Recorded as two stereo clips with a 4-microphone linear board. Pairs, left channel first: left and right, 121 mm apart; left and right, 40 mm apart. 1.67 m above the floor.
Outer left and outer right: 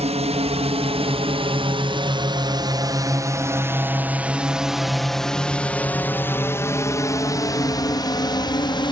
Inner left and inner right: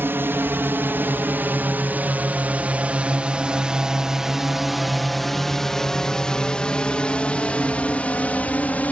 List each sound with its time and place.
0.0 s a drone: 60° right (ahead or behind); by 8.9 s 40° left (ahead or behind)